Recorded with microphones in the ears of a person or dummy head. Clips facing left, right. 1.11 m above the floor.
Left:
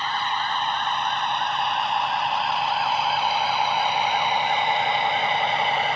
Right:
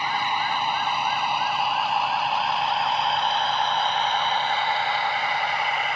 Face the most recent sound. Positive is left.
turn(degrees=30)  # may be behind; listen again after turning